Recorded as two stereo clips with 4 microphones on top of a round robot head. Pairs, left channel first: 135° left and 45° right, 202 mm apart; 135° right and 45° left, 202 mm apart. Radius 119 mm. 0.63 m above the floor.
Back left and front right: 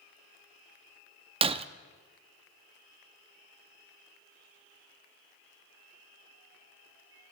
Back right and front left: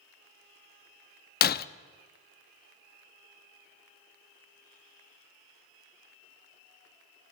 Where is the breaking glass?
105° right, 0.5 m.